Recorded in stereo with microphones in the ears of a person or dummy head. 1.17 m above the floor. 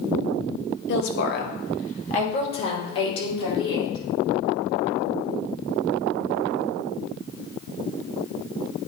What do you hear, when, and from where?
0.9 s a woman speaking: 60° left (ahead or behind), 1.2 m; by 4.0 s 30° left (ahead or behind), 3.5 m